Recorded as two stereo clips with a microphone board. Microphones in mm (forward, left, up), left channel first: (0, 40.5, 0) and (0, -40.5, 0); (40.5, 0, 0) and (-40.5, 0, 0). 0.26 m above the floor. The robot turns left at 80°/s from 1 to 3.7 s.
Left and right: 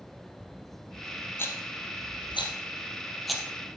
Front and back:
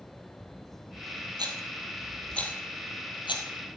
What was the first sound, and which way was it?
A rattle, 150° left.